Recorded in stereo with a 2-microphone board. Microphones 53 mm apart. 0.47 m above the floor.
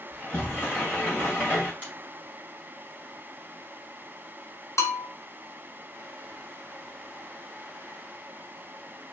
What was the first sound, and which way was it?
A sliding door, 45° left (ahead or behind).